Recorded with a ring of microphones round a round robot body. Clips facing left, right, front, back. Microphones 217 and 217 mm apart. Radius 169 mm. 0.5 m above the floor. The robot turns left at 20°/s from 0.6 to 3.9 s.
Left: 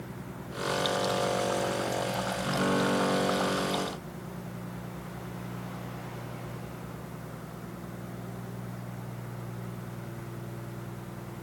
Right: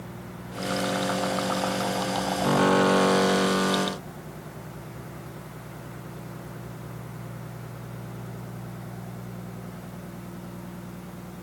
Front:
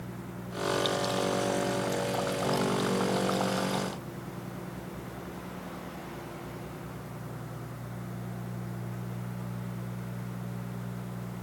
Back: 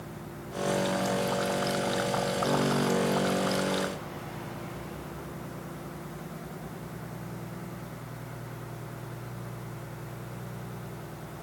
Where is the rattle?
No rattle in this recording.